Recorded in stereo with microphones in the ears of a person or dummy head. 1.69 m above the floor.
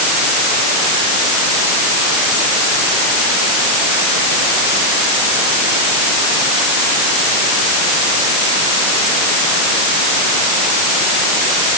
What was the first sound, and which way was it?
Only background noise.